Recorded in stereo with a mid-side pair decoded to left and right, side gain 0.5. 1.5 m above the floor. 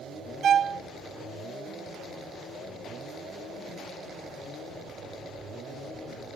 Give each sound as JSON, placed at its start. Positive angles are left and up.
{"t": 0.4, "sound": "a violin", "azimuth_deg": -55, "distance_m": 0.7}